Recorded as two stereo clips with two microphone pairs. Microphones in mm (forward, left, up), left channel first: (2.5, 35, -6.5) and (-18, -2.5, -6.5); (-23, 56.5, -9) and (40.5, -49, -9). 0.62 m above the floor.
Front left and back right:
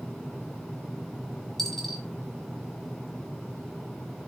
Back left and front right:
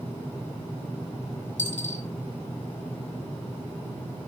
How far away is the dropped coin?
About 2 m.